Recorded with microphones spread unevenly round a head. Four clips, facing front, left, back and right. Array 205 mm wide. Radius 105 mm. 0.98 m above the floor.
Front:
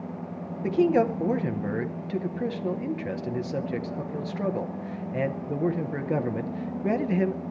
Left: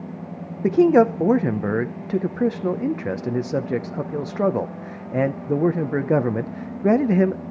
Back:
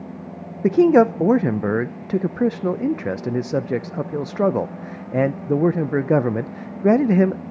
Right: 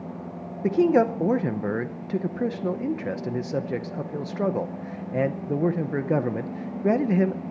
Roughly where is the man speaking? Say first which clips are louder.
Left 5 dB, back 8 dB; behind.